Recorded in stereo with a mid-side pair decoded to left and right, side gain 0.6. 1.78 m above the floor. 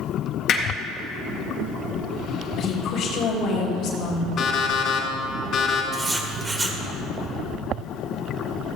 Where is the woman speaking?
60° left, 3 m.